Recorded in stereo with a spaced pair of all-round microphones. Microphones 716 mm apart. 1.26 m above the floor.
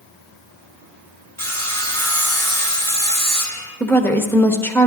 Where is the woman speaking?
5° left (ahead or behind), 1.0 m.